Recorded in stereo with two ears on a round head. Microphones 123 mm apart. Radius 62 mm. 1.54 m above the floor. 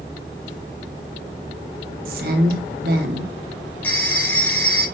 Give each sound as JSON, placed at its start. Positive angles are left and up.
{"t": 2.0, "sound": "a woman speaking", "side_deg": -75, "distance_m": 1.5}
{"t": 3.8, "sound": "a phone ringing", "side_deg": 15, "distance_m": 3.0}